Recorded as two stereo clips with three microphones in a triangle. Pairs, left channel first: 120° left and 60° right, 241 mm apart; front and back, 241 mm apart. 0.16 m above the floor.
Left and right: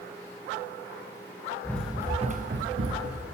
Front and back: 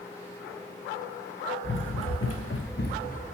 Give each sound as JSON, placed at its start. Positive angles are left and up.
{"t": 1.6, "sound": "running footsteps", "azimuth_deg": 40, "distance_m": 0.8}